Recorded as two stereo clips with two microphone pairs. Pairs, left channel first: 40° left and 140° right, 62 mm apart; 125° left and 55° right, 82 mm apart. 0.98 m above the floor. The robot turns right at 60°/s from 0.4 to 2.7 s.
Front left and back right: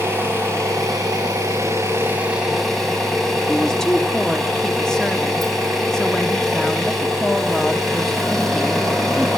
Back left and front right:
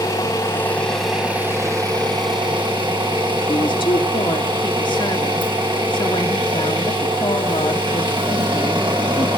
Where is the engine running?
175° left, 7 m; by 9.4 s 45° right, 7 m.